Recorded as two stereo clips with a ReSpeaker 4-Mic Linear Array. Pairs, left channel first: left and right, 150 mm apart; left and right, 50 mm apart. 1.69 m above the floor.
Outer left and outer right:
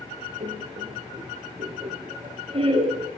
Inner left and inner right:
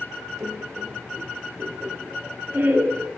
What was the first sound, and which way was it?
Laughter, 40° right (ahead or behind).